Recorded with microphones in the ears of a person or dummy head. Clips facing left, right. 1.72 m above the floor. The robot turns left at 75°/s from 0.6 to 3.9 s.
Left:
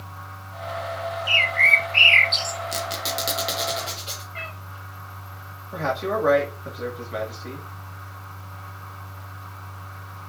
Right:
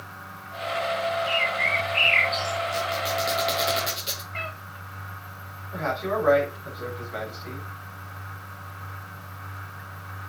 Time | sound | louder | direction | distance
1.3 | a bird | right 1 dB | 115° left | 0.7 m
2.7 | a squeak | right 2 dB | 50° left (ahead or behind) | 1.3 m
4.3 | a cat meowing | right 3 dB | 40° right (ahead or behind) | 2.0 m
5.7 | a man speaking | left 2 dB | 45° left (ahead or behind) | 2.5 m